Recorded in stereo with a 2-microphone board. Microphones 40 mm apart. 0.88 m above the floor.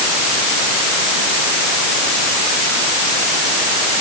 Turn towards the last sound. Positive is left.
No sound to turn to.